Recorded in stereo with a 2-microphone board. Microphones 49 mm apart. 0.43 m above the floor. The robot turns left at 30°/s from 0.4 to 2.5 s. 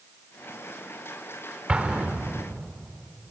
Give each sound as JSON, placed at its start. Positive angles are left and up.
{"t": 1.7, "sound": "an explosion", "side_deg": -25, "distance_m": 1.4}